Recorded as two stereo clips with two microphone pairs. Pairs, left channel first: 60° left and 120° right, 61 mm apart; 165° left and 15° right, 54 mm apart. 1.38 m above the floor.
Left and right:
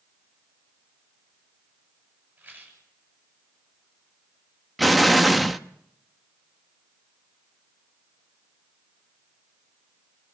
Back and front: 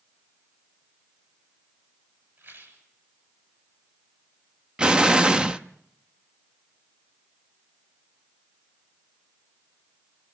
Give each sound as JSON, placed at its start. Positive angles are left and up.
{"t": 2.4, "sound": "a rattle", "azimuth_deg": -60, "distance_m": 8.0}
{"t": 4.8, "sound": "an explosion", "azimuth_deg": -30, "distance_m": 0.7}